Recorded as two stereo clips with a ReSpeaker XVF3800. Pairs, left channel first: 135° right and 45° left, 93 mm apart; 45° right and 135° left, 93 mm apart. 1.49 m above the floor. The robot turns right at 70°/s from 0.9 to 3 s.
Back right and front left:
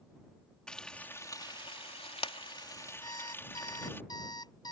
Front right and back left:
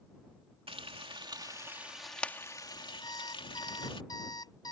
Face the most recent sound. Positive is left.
turn(degrees=-90)